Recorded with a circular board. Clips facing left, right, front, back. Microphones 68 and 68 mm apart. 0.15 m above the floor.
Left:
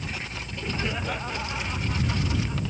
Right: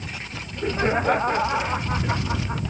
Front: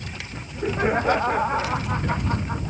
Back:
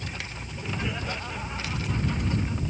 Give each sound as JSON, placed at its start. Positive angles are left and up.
{"t": 0.3, "sound": "laughter", "azimuth_deg": -45}